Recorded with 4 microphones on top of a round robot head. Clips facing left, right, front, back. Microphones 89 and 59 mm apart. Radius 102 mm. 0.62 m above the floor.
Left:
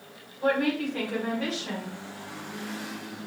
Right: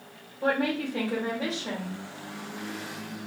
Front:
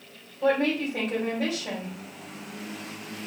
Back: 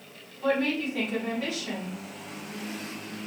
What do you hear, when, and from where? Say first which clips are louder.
0.4 s a woman speaking: left 1 dB, front 2 dB; 40° right, 3.5 m